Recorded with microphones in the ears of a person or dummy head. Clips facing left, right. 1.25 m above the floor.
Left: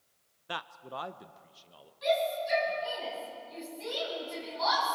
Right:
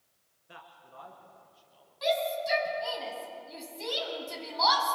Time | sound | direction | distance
0.5 | a man speaking | 70° left (ahead or behind) | 0.7 m
2.0 | a shout | 70° right (ahead or behind) | 7.5 m